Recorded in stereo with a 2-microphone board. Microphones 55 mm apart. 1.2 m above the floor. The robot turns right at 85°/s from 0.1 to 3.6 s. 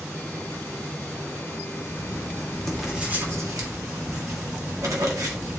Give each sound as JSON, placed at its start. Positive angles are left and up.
{"t": 1.9, "sound": "writing", "azimuth_deg": 105, "distance_m": 1.6}